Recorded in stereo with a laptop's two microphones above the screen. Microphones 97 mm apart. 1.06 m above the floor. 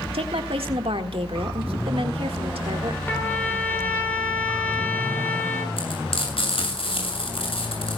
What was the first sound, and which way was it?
A woman speaking, 75° right (ahead or behind).